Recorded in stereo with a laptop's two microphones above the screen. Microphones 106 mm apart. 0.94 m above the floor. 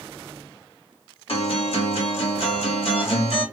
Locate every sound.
1.3 s a guitar: 65° left (ahead or behind), 2 m